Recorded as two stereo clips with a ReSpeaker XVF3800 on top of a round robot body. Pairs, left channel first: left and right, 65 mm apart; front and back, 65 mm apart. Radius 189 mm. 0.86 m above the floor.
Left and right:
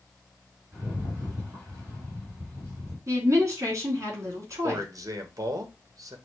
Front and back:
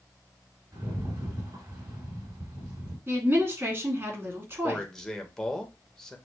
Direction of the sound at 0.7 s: 150° right.